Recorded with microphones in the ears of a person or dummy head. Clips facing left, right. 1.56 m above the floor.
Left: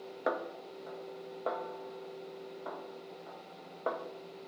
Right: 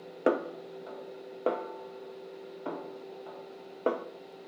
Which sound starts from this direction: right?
A snare drum, at 0.3 s.